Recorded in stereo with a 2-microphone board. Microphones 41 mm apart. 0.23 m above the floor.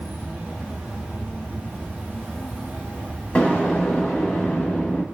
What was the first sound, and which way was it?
An insect, 30° right (ahead or behind).